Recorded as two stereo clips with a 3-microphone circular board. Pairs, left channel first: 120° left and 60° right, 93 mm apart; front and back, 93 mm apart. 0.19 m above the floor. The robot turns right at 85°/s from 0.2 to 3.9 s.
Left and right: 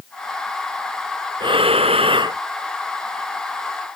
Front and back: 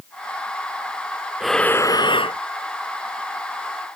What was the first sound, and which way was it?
Breathing, 95° right.